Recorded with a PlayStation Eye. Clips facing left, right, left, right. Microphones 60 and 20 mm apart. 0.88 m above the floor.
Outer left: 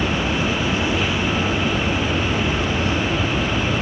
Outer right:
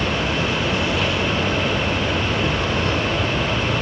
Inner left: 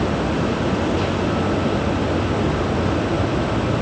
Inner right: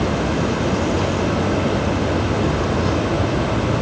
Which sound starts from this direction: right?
An insect, at 0.0 s.